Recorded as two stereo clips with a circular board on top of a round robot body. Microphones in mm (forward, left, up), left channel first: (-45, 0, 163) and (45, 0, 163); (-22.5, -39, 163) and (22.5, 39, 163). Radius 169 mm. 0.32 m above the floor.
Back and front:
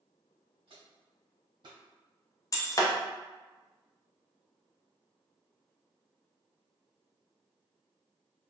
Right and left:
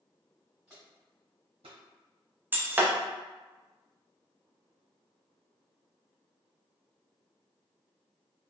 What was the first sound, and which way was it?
Footsteps, 25° right.